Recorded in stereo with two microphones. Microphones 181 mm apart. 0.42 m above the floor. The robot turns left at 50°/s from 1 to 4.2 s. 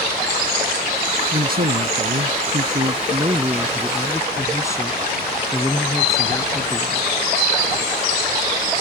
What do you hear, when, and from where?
1.3 s a man speaking: 55° right; by 7.1 s 160° left